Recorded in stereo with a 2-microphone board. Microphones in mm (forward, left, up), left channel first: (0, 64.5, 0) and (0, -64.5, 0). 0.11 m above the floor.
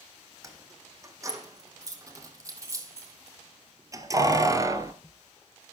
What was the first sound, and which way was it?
Keys jangling, 25° right (ahead or behind).